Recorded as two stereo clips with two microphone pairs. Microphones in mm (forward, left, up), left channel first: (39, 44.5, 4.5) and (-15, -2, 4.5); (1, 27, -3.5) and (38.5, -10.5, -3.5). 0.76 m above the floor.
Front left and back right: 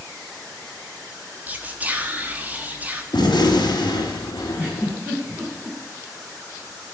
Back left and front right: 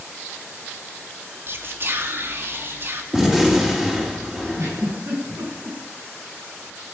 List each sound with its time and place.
1.5 s whispering: 75° right, 1.7 m
3.1 s a gunshot: 35° left, 3.5 m
4.5 s a giggle: 70° right, 5 m